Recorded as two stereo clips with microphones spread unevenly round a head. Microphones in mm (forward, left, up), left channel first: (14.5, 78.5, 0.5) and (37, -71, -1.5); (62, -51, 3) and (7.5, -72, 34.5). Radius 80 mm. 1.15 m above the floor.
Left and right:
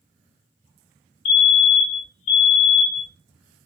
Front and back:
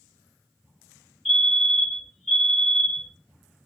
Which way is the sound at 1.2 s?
70° left.